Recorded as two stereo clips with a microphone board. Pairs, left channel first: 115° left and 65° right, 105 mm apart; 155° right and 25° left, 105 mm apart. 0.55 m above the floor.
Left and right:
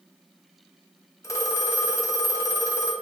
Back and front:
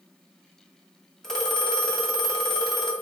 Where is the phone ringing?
125° left, 0.6 m.